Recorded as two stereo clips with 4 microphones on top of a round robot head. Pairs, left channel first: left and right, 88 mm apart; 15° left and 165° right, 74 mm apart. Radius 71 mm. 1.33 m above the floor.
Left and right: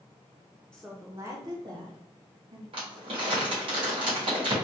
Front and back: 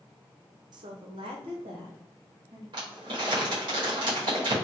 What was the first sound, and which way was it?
A woman speaking, 175° left.